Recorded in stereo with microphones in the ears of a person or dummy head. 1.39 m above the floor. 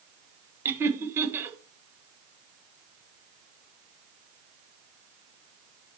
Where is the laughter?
10° right (ahead or behind), 1.5 m.